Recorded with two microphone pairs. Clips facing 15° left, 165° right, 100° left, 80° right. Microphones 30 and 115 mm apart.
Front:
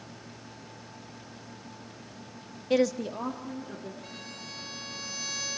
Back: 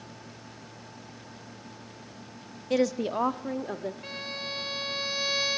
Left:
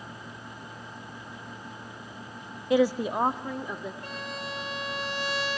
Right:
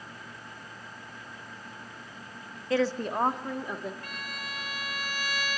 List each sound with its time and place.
2.7 s a woman speaking: 75° left, 0.6 m; by 3.9 s 165° right, 1.7 m
4.0 s a violin: 155° left, 1.2 m